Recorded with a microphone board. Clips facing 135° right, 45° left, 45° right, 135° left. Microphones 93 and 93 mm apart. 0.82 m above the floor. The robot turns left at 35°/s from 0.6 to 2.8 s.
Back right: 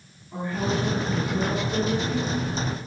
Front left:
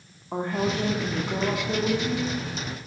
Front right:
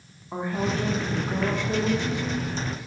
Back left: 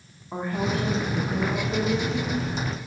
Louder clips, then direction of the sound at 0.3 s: Front left 1 dB, even; 45° left.